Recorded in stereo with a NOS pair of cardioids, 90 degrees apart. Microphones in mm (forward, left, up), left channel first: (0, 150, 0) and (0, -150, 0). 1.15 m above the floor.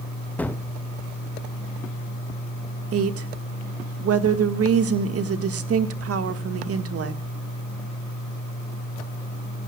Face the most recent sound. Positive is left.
turn(degrees=-55)